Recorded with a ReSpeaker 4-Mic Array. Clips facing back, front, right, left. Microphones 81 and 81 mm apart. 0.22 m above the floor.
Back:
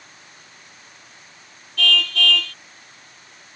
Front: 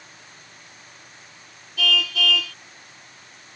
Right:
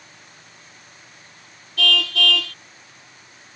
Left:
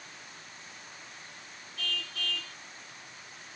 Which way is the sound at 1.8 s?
85° right.